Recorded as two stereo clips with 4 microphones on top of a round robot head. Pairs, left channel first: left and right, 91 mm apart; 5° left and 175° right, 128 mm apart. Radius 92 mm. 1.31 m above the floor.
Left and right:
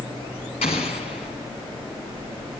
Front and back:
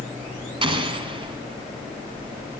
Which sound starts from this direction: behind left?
An explosion, at 0.6 s.